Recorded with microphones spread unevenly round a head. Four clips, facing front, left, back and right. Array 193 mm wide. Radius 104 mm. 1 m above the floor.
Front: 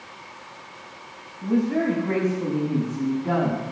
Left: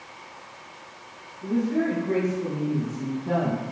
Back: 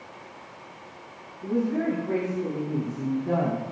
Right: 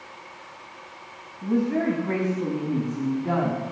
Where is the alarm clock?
No alarm clock in this recording.